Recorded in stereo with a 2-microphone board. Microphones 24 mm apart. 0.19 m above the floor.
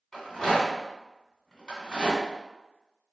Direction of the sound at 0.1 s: 25° left (ahead or behind).